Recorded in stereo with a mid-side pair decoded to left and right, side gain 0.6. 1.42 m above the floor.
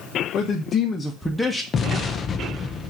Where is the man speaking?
55° left, 1.0 m; by 1.6 s straight ahead, 1.3 m.